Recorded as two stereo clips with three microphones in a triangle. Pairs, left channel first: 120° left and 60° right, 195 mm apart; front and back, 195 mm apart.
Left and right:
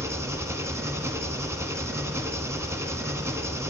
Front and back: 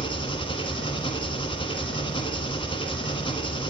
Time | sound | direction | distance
0.0 | an engine running | straight ahead | 1.1 m